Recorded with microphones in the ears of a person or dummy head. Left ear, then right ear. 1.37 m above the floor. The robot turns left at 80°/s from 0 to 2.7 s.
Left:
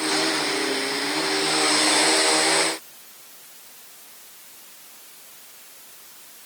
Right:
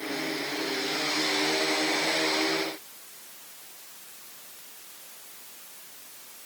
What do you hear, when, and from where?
Only background noise.